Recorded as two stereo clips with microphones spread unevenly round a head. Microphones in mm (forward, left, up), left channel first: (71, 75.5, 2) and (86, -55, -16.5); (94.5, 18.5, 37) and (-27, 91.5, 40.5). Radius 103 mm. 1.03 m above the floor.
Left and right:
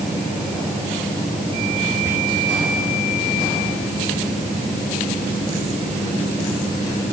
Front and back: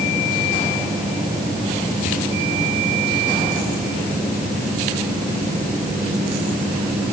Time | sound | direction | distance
2.0 | whispering | 10° right | 3.5 m